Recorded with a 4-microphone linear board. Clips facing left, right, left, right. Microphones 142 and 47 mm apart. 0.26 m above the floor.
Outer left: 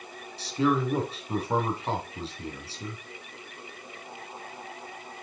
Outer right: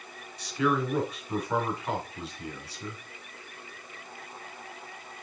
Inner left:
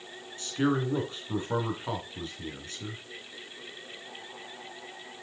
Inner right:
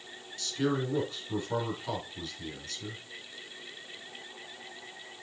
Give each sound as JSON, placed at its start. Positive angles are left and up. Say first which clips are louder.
{"t": 0.4, "sound": "a man speaking", "louder": "outer left 2 dB, inner left 3 dB", "side_deg": 30, "distance_m": 2.5}